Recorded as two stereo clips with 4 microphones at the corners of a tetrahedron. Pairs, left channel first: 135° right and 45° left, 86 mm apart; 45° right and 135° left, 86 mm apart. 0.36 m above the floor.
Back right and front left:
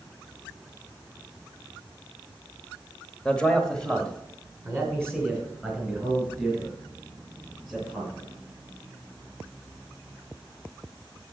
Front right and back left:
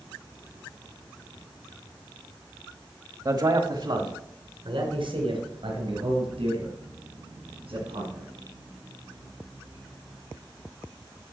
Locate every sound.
3.2 s a man speaking: 150° left, 1.1 m; by 8.3 s 140° left, 7 m